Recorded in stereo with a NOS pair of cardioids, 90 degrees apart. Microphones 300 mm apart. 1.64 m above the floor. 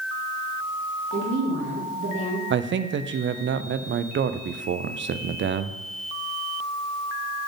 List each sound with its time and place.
1.1 s a woman speaking: 40° right, 2.5 m
2.5 s a man speaking: 40° right, 0.5 m